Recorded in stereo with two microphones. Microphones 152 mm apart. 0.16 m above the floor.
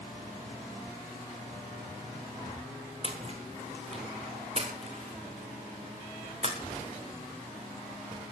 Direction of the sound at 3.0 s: 40° right (ahead or behind).